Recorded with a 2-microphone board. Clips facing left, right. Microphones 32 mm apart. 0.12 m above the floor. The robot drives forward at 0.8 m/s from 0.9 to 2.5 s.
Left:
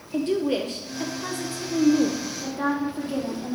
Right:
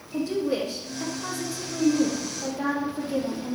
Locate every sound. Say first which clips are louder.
0.1 s a woman speaking: left 2 dB; 55° left (ahead or behind), 2.5 m; by 3.5 s 40° left (ahead or behind), 3.5 m